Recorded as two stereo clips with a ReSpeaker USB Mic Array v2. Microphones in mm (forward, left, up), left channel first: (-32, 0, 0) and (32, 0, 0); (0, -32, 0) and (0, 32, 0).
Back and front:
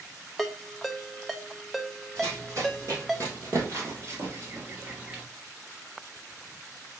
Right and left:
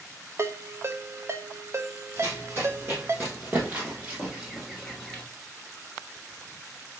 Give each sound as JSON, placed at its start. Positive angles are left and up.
{"t": 0.4, "sound": "a ringtone", "azimuth_deg": 90, "distance_m": 0.5}
{"t": 2.2, "sound": "running footsteps", "azimuth_deg": 45, "distance_m": 3.0}